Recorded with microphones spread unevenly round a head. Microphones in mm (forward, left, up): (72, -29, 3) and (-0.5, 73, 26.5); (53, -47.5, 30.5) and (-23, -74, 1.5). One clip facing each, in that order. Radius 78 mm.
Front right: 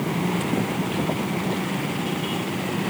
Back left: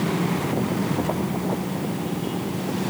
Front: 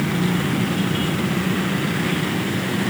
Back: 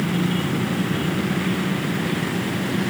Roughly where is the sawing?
I don't hear sawing.